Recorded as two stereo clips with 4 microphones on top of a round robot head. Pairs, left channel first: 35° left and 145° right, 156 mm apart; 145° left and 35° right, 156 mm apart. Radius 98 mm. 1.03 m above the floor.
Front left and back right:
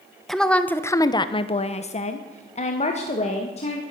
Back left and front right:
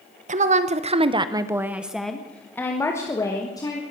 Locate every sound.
0.3 s a woman speaking: 55° right, 1.1 m; by 3.8 s 80° left, 2 m